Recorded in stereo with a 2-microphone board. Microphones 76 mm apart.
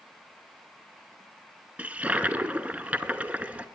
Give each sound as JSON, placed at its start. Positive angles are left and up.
{"t": 1.8, "sound": "a toilet flushing", "side_deg": -20, "distance_m": 0.6}